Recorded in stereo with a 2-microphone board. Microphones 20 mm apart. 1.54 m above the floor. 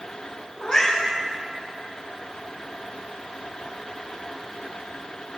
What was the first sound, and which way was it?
A cat meowing, 50° left (ahead or behind).